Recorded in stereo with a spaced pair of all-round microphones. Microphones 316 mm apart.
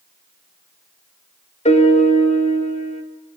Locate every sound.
1.6 s a piano: 20° left (ahead or behind), 2 m